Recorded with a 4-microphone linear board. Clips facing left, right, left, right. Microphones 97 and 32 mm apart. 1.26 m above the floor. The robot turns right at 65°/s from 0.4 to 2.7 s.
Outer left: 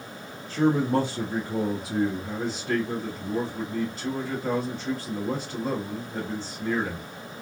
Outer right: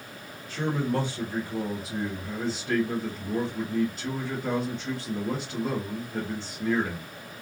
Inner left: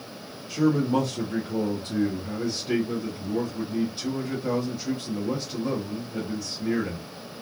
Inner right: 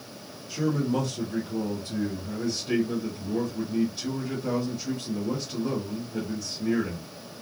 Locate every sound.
0.5 s a man speaking: 35° left, 1.0 m; by 7.1 s straight behind, 1.0 m